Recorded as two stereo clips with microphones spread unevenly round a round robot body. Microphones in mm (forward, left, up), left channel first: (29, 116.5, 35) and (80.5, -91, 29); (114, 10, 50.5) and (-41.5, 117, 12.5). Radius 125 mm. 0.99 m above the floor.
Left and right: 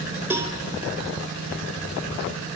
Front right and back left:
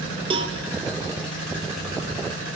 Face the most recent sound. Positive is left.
turn(degrees=-155)